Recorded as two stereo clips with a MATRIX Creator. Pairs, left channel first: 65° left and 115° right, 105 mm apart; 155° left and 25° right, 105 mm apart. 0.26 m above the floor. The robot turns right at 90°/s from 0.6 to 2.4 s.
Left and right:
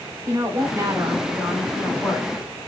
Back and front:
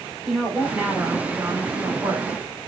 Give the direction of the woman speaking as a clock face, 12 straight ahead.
4 o'clock.